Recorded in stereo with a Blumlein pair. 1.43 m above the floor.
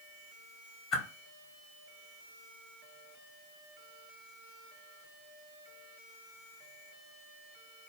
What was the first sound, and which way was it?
A whoosh, 35° left.